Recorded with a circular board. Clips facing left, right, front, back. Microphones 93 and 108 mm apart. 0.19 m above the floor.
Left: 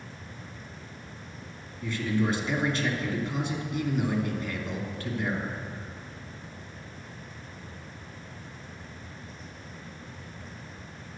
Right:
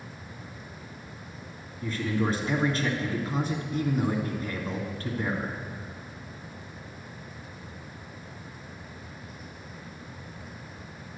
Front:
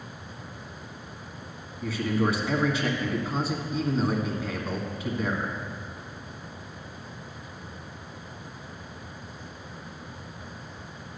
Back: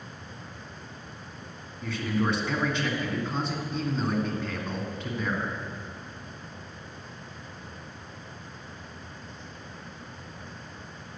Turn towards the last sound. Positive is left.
turn(degrees=-80)